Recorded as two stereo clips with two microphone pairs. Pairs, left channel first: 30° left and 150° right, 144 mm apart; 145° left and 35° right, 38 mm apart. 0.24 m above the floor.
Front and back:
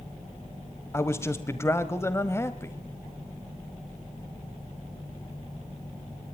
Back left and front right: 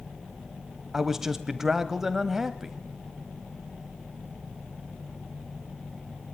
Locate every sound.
0.9 s a man speaking: 15° left, 1.3 m